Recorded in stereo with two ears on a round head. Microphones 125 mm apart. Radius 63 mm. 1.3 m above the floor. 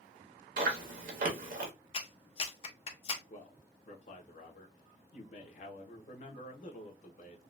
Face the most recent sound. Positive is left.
turn(degrees=60)  # may be behind; listen again after turning